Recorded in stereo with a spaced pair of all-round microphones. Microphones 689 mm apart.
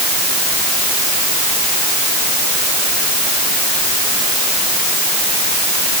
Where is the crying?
I don't hear crying.